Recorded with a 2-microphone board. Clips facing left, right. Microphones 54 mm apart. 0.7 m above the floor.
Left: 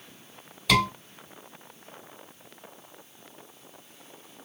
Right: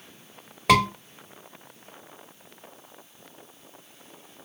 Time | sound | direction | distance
0.7 | a scream | 55° right (ahead or behind) | 2 m